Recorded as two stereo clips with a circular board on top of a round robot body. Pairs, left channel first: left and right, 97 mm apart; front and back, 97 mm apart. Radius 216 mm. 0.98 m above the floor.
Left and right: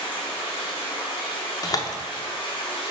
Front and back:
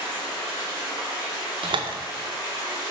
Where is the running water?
50° left, 3 m.